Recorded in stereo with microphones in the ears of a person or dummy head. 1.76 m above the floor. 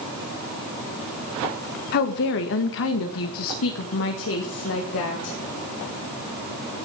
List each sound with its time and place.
1.9 s a woman speaking: 50° left (ahead or behind), 1.4 m; by 5.4 s 70° left (ahead or behind), 2.5 m